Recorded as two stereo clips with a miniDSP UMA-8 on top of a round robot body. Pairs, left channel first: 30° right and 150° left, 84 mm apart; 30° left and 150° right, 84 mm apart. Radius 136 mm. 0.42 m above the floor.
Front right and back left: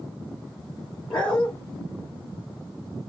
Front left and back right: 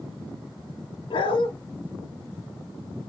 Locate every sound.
1.1 s a dog barking: 50° left, 3 m